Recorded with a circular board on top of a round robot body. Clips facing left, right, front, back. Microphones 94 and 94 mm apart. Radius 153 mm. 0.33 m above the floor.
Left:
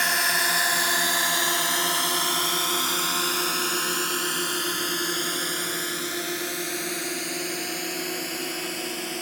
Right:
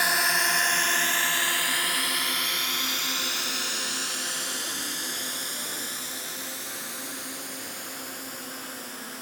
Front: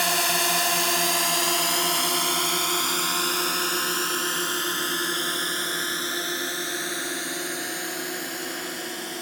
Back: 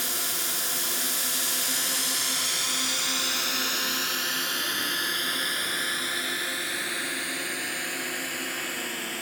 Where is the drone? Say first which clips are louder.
Even, front 11 dB; 5° right; by 9.2 s 70° left.